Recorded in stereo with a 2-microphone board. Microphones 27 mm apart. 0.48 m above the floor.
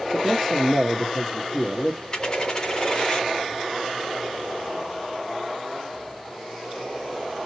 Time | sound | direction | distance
0.1 | a man speaking | 15° left (ahead or behind) | 0.9 m
2.1 | a dropped coin | 30° left (ahead or behind) | 1.8 m